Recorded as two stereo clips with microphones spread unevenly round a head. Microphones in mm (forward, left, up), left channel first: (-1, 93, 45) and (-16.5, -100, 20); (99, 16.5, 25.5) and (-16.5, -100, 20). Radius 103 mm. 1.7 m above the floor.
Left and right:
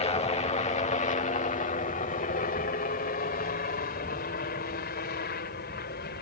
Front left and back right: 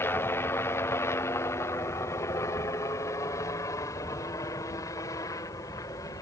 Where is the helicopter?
105° left; by 6.2 s 115° left.